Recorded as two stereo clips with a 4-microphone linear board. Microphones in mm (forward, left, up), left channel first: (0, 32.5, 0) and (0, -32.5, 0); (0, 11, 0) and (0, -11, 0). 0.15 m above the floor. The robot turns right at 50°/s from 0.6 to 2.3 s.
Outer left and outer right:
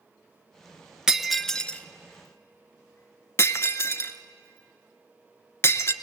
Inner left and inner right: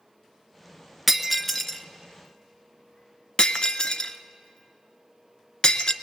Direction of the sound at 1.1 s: 10° right (ahead or behind).